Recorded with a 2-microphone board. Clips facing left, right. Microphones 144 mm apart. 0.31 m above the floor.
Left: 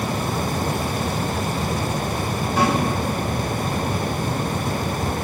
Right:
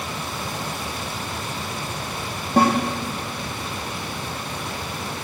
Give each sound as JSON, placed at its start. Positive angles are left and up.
{"t": 2.6, "sound": "a snare drum", "side_deg": -60, "distance_m": 6.0}